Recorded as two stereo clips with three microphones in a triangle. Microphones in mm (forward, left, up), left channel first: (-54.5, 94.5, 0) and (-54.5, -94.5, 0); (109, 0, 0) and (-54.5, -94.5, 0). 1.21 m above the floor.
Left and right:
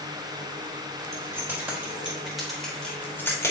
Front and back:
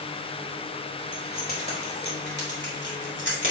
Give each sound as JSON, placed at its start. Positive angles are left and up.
{"t": 1.1, "sound": "keys jangling", "azimuth_deg": -15, "distance_m": 3.5}